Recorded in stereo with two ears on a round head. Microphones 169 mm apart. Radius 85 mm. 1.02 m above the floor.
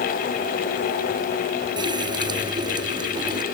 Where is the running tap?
25° right (ahead or behind).